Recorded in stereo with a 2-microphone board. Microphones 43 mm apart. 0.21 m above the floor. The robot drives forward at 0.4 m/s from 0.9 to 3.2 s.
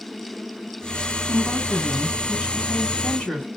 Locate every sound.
1.3 s a woman speaking: 30° left (ahead or behind), 2 m; by 3.5 s 20° left (ahead or behind), 2.5 m